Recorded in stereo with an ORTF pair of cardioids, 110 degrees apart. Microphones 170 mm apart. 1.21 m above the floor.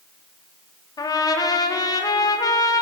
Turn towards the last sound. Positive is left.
turn(degrees=20)